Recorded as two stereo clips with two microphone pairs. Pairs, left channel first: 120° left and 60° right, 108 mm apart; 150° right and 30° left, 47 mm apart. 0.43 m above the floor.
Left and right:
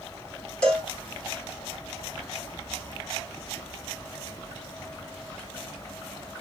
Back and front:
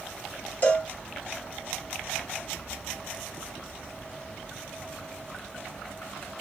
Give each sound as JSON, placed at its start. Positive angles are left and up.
{"t": 0.6, "sound": "a cowbell", "azimuth_deg": -160, "distance_m": 1.6}